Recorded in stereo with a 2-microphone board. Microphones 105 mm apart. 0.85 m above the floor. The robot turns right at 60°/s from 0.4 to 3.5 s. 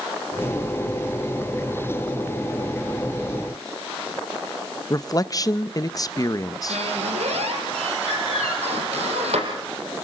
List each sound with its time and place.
4.9 s a man speaking: 35° left (ahead or behind), 0.7 m
6.7 s a squeak: 85° right, 5.5 m